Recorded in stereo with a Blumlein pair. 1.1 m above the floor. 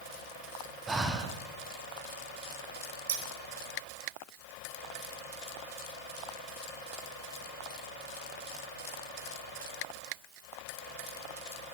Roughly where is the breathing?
Ahead.